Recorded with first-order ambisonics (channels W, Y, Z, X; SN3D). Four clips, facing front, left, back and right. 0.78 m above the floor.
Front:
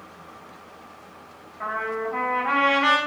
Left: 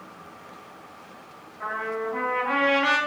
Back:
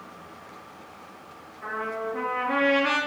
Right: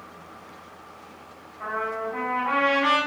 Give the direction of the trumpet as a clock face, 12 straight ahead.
12 o'clock.